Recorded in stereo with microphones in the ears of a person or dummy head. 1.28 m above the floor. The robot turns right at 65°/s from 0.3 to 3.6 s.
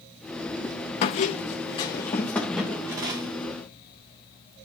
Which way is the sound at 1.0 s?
85° left.